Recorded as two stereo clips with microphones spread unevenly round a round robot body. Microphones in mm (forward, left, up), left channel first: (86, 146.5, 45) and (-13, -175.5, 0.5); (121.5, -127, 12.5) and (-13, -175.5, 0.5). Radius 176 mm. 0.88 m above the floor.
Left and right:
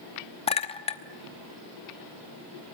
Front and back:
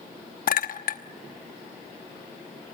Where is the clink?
Straight ahead, 1.1 m.